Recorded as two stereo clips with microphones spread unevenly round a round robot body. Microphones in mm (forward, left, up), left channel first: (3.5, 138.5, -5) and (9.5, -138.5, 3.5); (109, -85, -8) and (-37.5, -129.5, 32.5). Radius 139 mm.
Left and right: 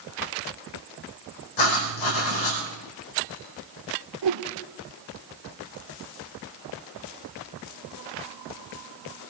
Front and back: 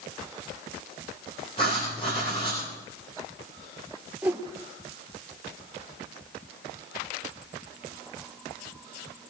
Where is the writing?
90° left, 6 m.